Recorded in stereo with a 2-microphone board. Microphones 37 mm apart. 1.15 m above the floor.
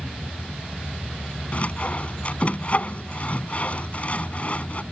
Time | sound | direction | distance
1.5 | sawing | 40° left (ahead or behind) | ?